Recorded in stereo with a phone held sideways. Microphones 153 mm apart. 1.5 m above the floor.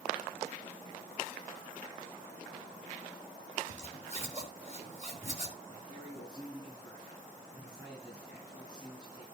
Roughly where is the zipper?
Right.